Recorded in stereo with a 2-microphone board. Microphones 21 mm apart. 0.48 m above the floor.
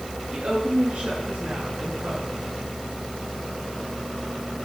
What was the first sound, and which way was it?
A woman speaking, 55° right (ahead or behind).